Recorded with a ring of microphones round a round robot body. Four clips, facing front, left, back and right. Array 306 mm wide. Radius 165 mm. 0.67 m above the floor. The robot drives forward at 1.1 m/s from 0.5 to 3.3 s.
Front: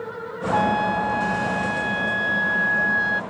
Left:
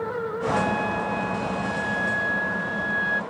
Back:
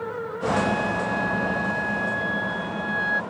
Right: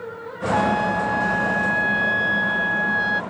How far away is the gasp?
I don't hear a gasp.